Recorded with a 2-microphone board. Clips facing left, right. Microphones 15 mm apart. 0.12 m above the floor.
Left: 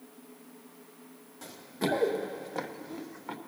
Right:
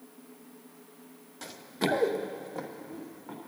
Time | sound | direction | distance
1.4 | running footsteps | 45° right (ahead or behind) | 1.8 m